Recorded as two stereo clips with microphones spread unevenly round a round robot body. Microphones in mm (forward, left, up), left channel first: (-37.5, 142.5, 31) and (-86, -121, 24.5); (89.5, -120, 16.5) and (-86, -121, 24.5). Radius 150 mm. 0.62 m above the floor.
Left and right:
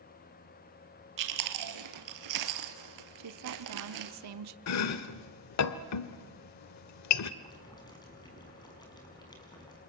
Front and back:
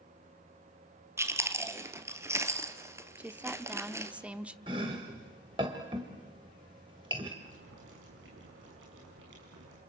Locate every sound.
1.2 s chewing: 105° right, 2.0 m
3.2 s a woman speaking: 95° right, 1.2 m
4.7 s chopping: 105° left, 1.1 m
7.4 s boiling: 155° left, 6 m